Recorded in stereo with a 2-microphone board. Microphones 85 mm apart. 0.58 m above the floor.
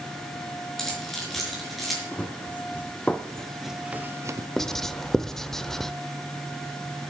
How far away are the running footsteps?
About 1.9 m.